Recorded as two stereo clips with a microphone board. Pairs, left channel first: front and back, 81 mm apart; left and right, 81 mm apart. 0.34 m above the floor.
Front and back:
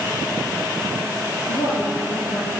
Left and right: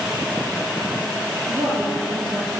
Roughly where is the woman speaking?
Ahead right.